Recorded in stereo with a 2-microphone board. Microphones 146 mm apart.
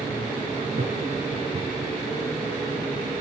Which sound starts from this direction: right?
Laughter, at 0.7 s.